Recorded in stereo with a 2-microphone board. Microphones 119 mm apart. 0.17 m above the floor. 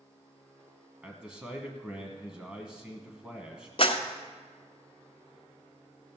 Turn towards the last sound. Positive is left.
turn(degrees=55)  # may be behind; listen again after turning